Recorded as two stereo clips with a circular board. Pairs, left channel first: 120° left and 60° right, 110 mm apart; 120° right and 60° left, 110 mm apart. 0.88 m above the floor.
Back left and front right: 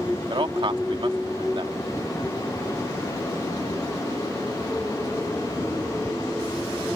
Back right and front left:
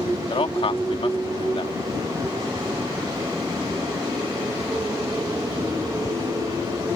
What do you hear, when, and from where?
0.3 s a man speaking: 95° right